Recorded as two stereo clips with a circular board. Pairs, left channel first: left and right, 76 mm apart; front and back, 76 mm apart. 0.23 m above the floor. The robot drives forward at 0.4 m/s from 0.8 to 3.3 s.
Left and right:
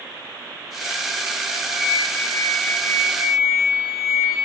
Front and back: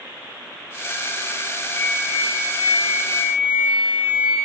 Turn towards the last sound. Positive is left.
turn(degrees=160)